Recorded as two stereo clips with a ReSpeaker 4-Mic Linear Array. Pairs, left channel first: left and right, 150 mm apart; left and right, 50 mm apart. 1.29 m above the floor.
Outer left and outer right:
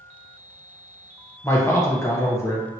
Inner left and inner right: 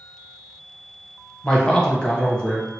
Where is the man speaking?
20° left (ahead or behind), 0.8 m.